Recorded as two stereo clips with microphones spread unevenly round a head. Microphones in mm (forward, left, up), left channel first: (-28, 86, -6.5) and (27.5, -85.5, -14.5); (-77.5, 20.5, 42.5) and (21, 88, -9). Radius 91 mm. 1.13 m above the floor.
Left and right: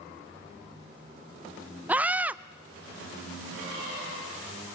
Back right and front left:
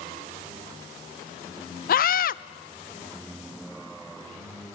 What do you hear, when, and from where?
1.9 s a scream: 155° right, 0.6 m